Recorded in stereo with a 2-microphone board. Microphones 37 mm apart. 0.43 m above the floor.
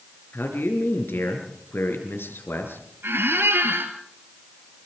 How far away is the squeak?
About 2.5 m.